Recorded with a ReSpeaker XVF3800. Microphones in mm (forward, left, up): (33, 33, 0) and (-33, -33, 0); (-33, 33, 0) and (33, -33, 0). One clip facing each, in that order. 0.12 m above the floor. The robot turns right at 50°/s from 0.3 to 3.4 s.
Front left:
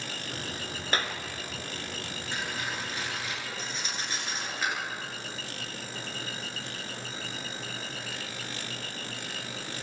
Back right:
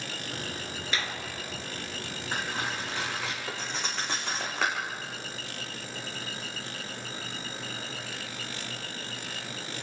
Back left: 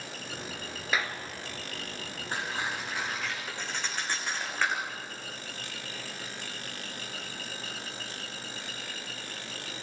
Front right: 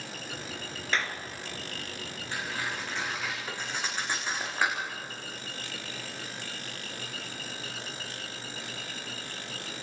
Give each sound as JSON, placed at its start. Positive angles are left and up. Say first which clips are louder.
{"t": 0.9, "sound": "a clap", "louder": "front left 3 dB, even", "azimuth_deg": 55, "distance_m": 1.9}
{"t": 2.3, "sound": "cutlery clinking", "louder": "back right 3 dB, back left 1 dB", "azimuth_deg": -175, "distance_m": 6.0}